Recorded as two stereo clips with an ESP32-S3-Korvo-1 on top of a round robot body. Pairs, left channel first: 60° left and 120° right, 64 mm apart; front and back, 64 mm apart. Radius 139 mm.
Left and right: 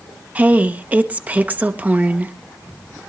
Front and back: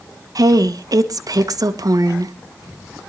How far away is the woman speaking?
About 1.5 m.